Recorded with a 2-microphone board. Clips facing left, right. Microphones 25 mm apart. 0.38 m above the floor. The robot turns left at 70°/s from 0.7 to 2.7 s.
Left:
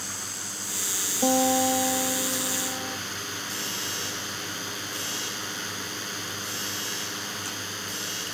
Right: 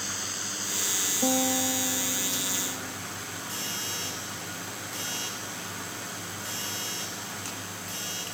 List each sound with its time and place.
0.0 s a drone: 165° right; by 8.3 s 55° left
1.2 s a guitar: 160° left; by 3.0 s 55° left